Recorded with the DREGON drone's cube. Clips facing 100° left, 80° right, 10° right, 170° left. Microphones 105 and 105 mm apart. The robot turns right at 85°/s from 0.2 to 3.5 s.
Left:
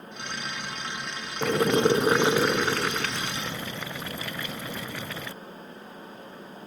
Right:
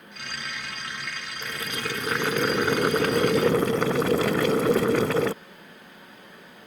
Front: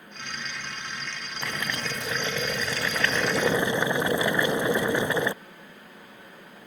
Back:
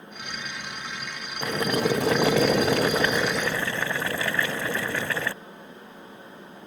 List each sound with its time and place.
1.4 s boiling: 100° left; by 5.3 s 85° right